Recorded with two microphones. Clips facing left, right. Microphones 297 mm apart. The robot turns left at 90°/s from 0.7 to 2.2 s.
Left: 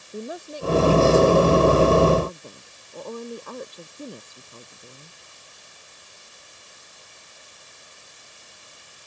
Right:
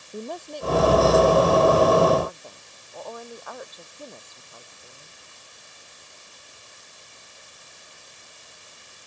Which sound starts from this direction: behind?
A woman speaking, at 0.1 s.